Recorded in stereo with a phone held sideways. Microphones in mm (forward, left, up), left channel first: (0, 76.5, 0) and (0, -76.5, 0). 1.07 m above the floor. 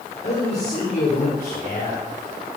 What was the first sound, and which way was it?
A man speaking, 60° left (ahead or behind).